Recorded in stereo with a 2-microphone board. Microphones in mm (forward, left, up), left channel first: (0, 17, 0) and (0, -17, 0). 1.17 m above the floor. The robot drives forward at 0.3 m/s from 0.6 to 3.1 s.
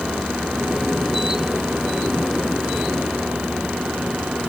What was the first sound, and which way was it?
Only background noise.